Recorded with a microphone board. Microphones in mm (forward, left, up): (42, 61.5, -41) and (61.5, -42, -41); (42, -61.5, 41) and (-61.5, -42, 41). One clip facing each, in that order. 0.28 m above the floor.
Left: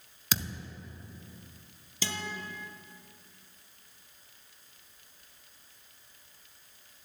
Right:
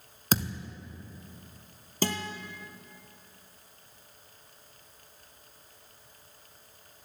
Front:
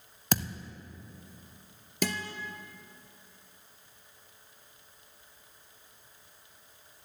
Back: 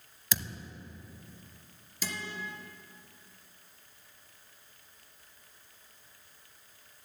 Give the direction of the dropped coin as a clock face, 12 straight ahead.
No dropped coin in this recording.